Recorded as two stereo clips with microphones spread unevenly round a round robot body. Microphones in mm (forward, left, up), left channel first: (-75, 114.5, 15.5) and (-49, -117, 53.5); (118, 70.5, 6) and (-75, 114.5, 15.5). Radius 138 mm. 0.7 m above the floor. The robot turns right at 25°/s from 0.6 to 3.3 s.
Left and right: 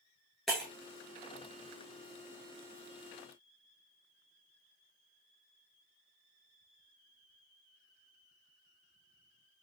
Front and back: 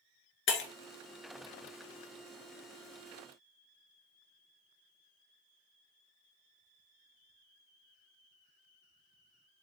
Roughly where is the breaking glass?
Ahead.